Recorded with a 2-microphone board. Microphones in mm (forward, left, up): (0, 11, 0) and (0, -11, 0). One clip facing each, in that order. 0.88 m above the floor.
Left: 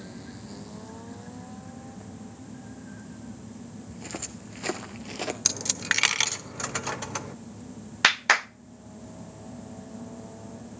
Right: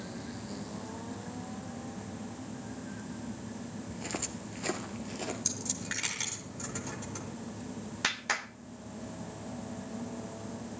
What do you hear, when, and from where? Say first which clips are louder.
3.9 s footsteps: even; 10° right (ahead or behind), 1.2 m; by 5.3 s 45° left (ahead or behind), 1.3 m
5.5 s a dropped coin: left 9 dB; 60° left (ahead or behind), 0.8 m
8.0 s a clap: left 11 dB; 45° left (ahead or behind), 0.6 m